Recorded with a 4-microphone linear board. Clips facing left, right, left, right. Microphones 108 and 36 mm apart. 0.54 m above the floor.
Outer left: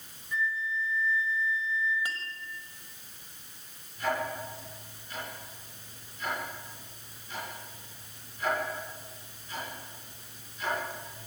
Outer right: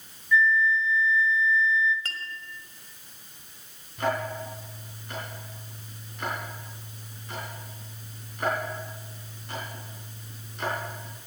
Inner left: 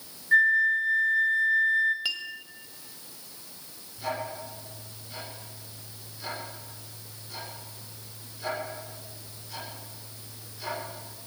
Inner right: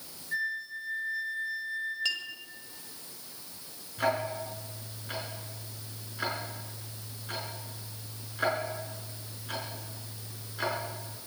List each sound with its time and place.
0.3 s a flute: 50° left (ahead or behind), 1.9 m
2.0 s a clink: 15° left (ahead or behind), 1.6 m
4.0 s ticking: 70° right (ahead or behind), 5 m